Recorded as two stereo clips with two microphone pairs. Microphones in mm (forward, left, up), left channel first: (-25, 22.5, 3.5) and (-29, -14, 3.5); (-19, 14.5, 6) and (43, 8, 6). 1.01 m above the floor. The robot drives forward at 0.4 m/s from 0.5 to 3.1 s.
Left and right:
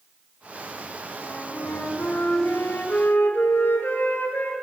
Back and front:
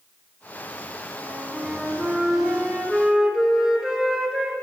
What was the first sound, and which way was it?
A flute, 60° left.